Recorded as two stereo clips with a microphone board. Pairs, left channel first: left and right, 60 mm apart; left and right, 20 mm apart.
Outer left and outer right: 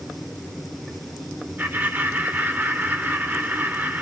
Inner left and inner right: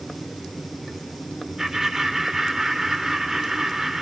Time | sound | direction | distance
1.6 | laughter | 35° right (ahead or behind) | 3 m